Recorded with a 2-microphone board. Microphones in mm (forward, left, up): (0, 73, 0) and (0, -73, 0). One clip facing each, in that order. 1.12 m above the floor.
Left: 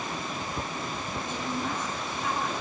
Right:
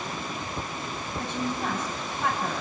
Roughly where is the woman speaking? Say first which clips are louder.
Right 4 dB; right.